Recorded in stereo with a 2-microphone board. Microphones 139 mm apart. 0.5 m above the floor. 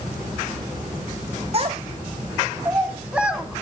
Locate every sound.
1.5 s a child speaking: 45° right (ahead or behind), 1.8 m; by 3.6 s centre (ahead or behind), 2.5 m